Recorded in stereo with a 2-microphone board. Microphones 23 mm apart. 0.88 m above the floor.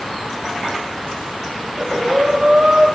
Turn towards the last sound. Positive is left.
turn(degrees=-85)